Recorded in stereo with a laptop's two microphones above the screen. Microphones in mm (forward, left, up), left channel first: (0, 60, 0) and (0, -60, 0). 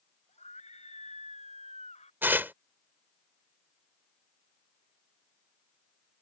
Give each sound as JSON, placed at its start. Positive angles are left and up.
{"t": 0.3, "sound": "a scream", "side_deg": 65}
{"t": 2.2, "sound": "tearing paper", "side_deg": -15}